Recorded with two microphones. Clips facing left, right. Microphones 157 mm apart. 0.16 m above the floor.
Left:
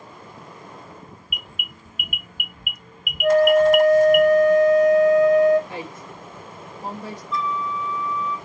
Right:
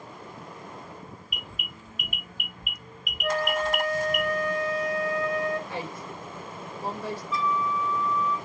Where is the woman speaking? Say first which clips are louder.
Left 1 dB; 20° left (ahead or behind), 1.4 m.